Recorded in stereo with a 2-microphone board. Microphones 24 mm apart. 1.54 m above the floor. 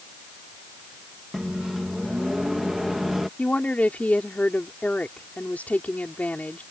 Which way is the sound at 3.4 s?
80° left.